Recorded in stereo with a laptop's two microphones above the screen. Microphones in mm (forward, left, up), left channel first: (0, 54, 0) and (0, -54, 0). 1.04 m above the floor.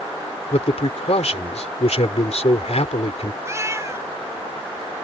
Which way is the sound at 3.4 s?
30° right (ahead or behind).